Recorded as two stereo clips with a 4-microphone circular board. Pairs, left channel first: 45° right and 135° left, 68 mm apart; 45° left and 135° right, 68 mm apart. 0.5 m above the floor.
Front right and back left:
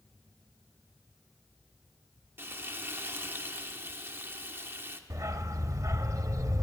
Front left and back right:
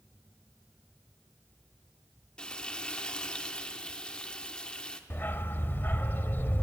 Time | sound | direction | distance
2.4 | frying | 110° left | 0.8 m
5.1 | a dog barking | 100° left | 0.5 m